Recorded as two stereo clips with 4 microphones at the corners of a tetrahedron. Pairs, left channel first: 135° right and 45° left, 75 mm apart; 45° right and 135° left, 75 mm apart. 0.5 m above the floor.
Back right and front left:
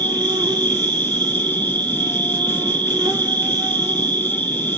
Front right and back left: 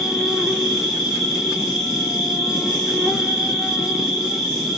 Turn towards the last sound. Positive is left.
turn(degrees=40)